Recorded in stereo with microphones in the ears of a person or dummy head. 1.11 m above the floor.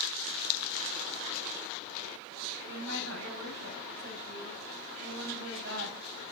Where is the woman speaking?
65° right (ahead or behind), 5 m.